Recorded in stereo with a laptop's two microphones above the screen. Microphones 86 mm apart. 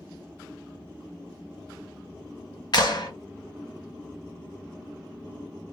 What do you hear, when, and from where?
2.7 s a clap: 60° left (ahead or behind), 0.9 m